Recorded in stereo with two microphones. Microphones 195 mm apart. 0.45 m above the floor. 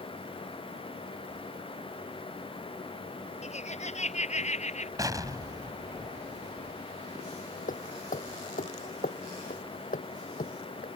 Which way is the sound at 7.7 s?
45° left (ahead or behind).